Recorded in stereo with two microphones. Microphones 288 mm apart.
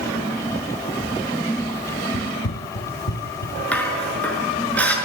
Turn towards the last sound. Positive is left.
turn(degrees=5)  # may be behind; listen again after turning